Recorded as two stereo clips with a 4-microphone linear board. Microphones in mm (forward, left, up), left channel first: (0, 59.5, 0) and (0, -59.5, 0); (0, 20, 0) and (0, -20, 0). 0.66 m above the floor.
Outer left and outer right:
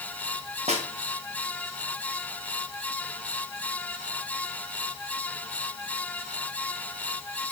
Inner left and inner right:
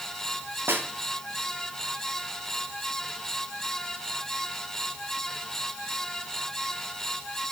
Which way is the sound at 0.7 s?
70° right (ahead or behind).